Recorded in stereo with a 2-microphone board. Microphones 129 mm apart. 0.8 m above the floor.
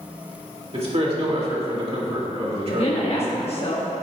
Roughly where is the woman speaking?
Left.